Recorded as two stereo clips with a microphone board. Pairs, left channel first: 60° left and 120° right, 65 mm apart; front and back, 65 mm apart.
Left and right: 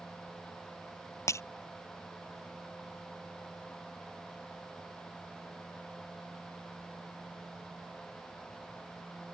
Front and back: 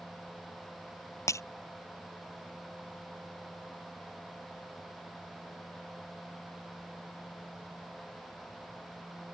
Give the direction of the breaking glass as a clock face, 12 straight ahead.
11 o'clock.